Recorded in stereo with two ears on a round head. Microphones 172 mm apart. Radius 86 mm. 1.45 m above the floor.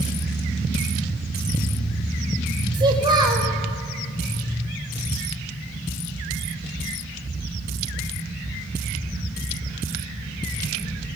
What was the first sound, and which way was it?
A child speaking, 25° right (ahead or behind).